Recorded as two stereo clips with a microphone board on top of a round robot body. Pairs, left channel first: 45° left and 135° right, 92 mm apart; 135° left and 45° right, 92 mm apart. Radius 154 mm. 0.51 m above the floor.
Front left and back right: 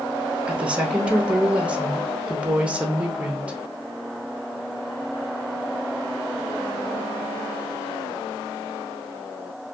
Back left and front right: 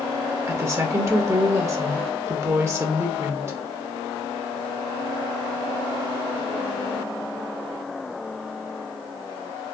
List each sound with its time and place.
0.5 s a woman speaking: 70° right, 0.8 m